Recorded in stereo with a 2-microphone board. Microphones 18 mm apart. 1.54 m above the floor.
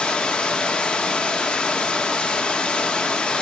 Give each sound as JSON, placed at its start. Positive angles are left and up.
{"t": 0.0, "sound": "running water", "side_deg": 75, "distance_m": 1.8}